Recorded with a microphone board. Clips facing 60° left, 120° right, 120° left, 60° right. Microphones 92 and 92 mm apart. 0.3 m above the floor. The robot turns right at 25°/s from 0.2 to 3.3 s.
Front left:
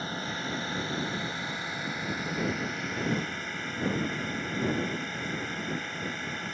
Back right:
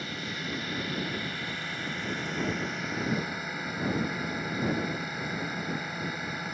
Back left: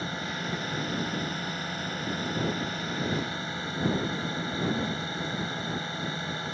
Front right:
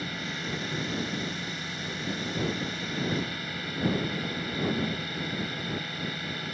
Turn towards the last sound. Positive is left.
turn(degrees=160)